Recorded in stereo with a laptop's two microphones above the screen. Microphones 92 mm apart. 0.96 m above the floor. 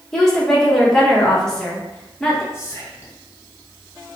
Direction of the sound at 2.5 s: 30° left (ahead or behind).